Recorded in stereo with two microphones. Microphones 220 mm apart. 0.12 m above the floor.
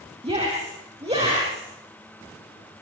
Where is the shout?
25° right (ahead or behind), 5.5 m.